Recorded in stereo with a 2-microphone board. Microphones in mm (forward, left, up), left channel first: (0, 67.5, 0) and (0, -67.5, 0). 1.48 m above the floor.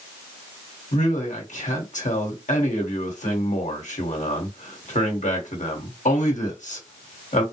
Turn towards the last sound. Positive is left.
turn(degrees=70)  # may be behind; listen again after turning